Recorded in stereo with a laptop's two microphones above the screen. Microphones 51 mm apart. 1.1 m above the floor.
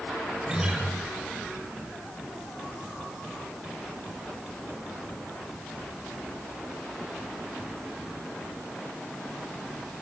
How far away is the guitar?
About 4 m.